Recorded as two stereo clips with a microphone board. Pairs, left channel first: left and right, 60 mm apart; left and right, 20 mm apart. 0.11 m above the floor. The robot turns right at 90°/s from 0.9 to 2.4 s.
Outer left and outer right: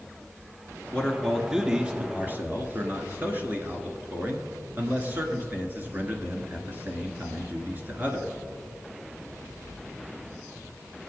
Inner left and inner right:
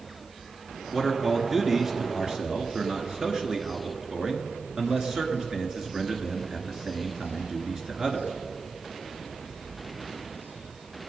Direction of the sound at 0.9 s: 135° left.